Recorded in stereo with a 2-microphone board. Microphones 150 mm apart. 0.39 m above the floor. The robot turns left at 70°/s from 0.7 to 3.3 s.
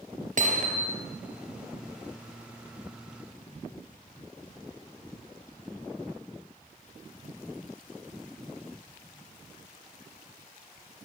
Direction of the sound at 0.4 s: 55° right (ahead or behind).